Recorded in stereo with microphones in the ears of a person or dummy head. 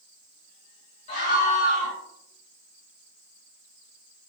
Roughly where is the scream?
Left.